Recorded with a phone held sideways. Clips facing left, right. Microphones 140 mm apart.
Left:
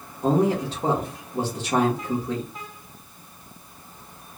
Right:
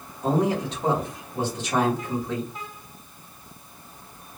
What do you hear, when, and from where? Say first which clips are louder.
0.2 s a man speaking: left 2 dB; 30° left (ahead or behind), 1.7 m